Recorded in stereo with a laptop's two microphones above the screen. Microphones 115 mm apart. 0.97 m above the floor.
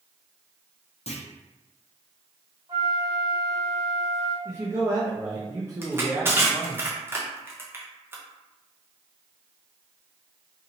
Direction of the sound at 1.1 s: 65° left (ahead or behind).